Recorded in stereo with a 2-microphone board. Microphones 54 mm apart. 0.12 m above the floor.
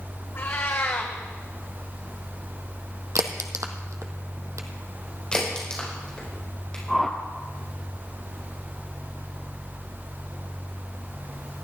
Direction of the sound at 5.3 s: 15° left (ahead or behind).